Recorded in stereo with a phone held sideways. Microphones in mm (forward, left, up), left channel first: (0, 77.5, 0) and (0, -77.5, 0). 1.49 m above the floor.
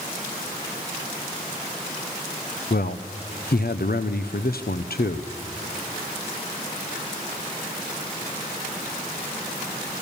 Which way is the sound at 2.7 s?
75° left (ahead or behind).